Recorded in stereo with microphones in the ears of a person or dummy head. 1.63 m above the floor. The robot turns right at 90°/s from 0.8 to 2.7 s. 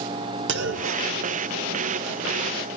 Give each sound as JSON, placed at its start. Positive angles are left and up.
{"t": 0.5, "sound": "a clunk", "side_deg": -65, "distance_m": 0.6}